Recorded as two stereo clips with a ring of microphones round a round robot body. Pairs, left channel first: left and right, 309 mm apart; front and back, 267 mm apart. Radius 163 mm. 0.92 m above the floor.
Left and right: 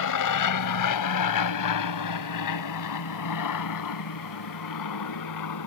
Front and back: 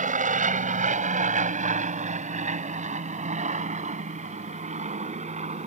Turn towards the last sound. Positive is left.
turn(degrees=115)